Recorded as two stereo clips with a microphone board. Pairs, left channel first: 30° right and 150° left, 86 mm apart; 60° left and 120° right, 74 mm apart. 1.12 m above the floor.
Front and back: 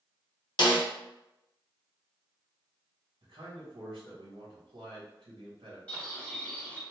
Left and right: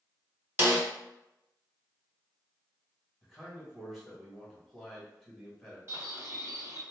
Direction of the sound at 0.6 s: 60° right.